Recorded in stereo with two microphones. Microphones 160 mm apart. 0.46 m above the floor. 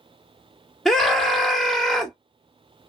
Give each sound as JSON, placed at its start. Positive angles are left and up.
{"t": 0.8, "sound": "a scream", "side_deg": 5, "distance_m": 1.1}